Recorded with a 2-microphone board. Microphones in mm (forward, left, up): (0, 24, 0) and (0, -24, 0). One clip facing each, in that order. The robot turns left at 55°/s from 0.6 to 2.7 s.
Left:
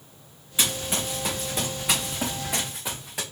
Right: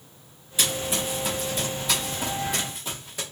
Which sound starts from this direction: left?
Running footsteps, at 0.6 s.